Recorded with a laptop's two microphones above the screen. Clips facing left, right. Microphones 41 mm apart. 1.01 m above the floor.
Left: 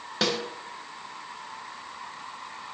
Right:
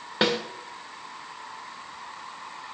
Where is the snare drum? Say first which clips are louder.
Right 3 dB; 25° right (ahead or behind), 1.7 m.